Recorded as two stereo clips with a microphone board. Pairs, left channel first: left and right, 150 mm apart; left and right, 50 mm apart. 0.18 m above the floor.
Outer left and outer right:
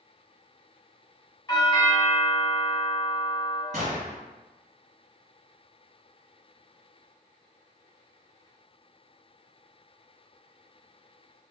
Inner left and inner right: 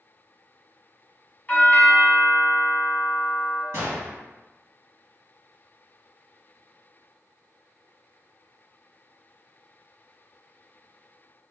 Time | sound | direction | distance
1.5 | a doorbell | 25° left (ahead or behind) | 1.6 m
3.7 | a gunshot | 60° right (ahead or behind) | 2.0 m